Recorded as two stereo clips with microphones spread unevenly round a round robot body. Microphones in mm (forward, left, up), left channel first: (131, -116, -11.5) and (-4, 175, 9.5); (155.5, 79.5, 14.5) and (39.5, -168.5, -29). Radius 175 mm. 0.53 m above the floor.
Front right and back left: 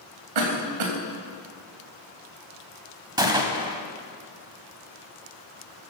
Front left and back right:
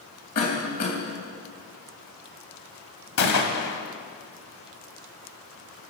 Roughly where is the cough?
Behind left.